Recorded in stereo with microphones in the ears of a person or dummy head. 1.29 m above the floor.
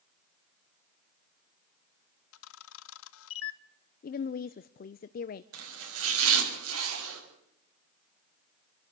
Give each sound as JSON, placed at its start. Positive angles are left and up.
{"t": 2.3, "sound": "a camera shutter", "side_deg": 75, "distance_m": 0.8}
{"t": 4.0, "sound": "a woman speaking", "side_deg": 45, "distance_m": 0.6}
{"t": 5.5, "sound": "chopping", "side_deg": -75, "distance_m": 6.0}